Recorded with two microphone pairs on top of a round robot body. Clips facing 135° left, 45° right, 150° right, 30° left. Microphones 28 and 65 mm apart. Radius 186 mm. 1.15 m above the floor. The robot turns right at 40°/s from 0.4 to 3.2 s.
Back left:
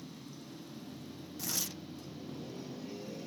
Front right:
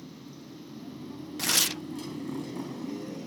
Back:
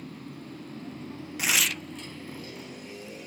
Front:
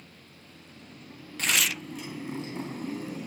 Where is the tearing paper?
70° right; by 1.8 s 55° right.